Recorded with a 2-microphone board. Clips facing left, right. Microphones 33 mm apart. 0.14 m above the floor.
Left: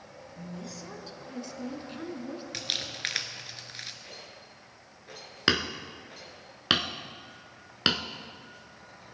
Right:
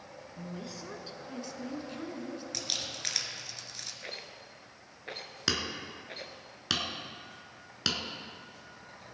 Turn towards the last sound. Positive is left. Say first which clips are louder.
# left 6 dB
turn(degrees=35)  # may be behind; listen again after turning